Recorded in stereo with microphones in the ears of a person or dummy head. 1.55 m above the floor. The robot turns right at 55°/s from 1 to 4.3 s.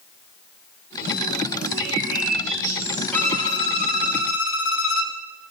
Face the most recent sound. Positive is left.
turn(degrees=75)